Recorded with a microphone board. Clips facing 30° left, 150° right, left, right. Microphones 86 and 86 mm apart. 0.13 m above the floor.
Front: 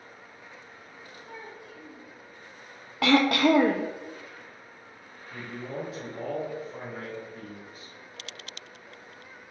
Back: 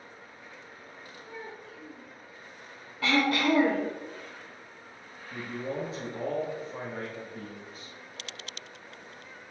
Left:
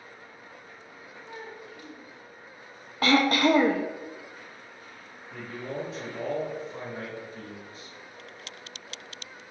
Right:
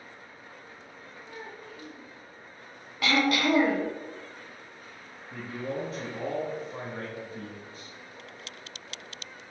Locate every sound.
1.2 s a child speaking: 15° left, 2 m
3.0 s throat clearing: 40° left, 0.8 m
5.3 s a man speaking: 110° right, 1.3 m